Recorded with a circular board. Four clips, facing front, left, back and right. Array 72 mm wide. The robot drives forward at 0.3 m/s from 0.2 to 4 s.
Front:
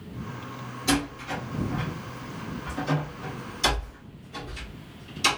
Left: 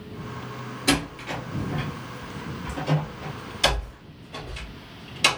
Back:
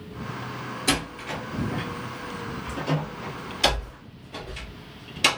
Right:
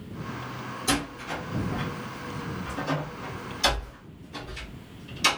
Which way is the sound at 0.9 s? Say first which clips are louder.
Left 4 dB, front 2 dB; 125° left.